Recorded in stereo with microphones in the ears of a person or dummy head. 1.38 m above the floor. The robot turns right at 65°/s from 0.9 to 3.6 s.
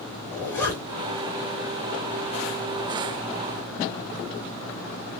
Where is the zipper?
5° left (ahead or behind), 2.5 m; by 1.1 s 10° right (ahead or behind), 2.5 m.